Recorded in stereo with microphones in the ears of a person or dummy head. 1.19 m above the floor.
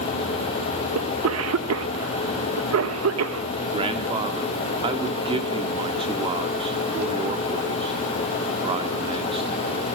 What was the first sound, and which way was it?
A cough, 75° right (ahead or behind).